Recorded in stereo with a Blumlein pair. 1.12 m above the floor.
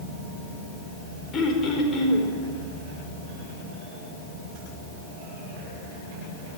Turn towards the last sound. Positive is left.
turn(degrees=25)